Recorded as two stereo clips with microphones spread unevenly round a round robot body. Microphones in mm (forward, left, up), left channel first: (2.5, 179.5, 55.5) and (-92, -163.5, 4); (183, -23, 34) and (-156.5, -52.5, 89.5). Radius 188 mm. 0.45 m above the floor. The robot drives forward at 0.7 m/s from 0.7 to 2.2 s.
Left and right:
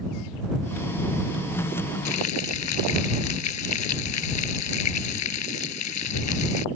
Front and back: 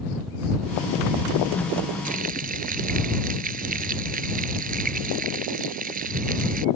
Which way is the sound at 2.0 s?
115° left.